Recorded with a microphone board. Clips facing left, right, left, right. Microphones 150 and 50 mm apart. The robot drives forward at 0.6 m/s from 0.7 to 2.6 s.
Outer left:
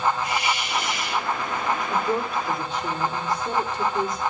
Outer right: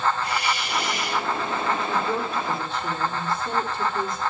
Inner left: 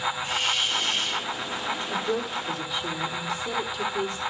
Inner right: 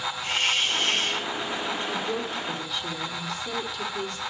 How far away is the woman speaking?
About 7 m.